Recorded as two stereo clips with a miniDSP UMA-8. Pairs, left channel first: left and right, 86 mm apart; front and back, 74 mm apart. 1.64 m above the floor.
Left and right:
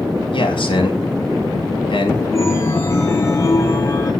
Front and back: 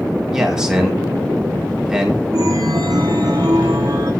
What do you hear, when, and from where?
0.3 s a man speaking: 100° left, 5.5 m
2.3 s a chime: 145° left, 3 m